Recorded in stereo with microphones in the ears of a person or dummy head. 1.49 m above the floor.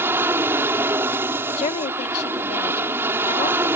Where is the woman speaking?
40° left (ahead or behind).